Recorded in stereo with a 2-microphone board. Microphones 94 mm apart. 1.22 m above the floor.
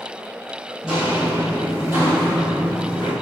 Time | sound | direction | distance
0.8 | footsteps | 10° right (ahead or behind) | 1.6 m